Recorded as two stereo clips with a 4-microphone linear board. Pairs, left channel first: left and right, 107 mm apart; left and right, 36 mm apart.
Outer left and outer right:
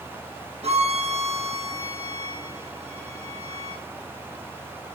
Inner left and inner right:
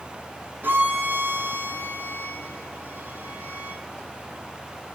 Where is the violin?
75° right (ahead or behind), 4 m.